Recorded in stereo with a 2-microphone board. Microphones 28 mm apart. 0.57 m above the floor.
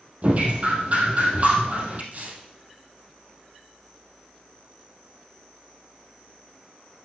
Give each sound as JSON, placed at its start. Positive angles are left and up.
{"t": 0.2, "sound": "dripping", "side_deg": -45, "distance_m": 3.0}
{"t": 2.1, "sound": "tearing paper", "side_deg": -55, "distance_m": 3.0}